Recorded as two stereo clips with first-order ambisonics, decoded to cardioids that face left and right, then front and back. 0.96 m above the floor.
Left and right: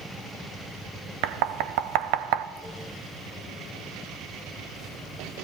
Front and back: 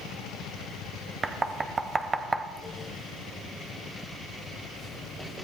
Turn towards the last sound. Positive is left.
turn(degrees=-105)